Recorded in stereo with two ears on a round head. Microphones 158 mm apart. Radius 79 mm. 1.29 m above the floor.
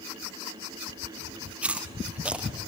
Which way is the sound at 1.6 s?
5° right (ahead or behind).